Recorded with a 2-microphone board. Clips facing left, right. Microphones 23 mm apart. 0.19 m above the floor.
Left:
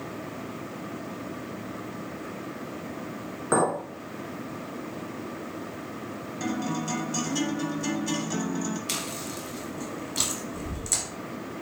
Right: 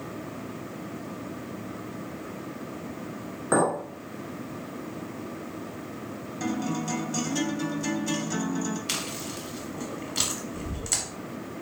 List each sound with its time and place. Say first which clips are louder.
3.5 s a clink: even; centre (ahead or behind), 1.3 m
6.4 s a guitar: even; 5° left (ahead or behind), 0.8 m
8.9 s chewing: even; 15° right (ahead or behind), 0.9 m